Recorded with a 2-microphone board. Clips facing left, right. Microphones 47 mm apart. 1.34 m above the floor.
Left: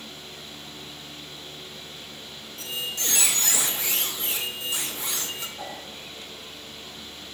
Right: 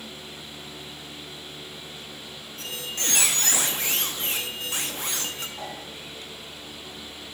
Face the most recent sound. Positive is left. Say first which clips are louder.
# even
turn(degrees=-70)  # may be behind; listen again after turning